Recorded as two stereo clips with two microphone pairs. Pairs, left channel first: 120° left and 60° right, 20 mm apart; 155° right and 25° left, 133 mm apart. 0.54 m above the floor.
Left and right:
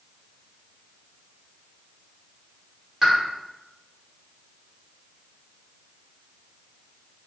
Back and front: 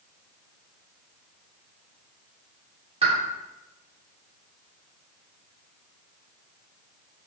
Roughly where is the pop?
Ahead.